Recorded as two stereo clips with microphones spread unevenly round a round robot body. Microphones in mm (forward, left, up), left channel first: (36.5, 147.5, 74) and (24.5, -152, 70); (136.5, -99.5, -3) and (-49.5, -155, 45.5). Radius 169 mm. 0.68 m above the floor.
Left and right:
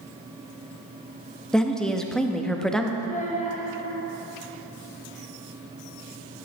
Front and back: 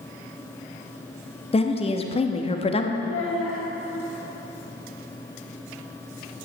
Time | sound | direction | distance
1.5 | a woman speaking | straight ahead | 0.8 m
3.0 | a child speaking | 25° left | 2 m